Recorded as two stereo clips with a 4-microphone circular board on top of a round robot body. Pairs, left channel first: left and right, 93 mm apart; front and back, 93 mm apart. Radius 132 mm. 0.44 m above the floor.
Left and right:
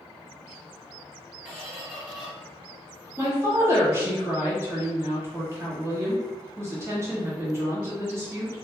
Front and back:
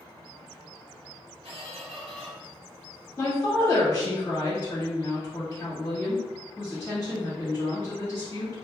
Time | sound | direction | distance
1.4 | a squeak | 170° right | 1.4 m
3.2 | a woman speaking | 45° right | 1.2 m